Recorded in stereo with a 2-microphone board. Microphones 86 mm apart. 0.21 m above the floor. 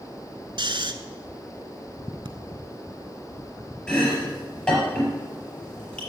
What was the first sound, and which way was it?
Snoring, 70° right (ahead or behind).